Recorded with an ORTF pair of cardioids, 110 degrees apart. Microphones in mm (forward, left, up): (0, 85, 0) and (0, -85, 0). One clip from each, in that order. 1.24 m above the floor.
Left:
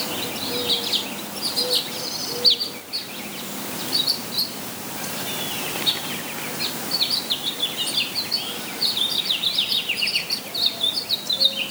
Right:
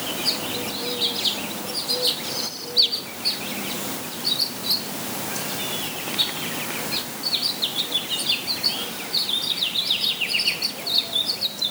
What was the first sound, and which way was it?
Only background noise.